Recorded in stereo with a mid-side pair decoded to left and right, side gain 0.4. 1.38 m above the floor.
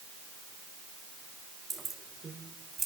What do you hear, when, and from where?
1.7 s keys jangling: 35° right, 3.5 m; by 2.9 s 40° right, 3 m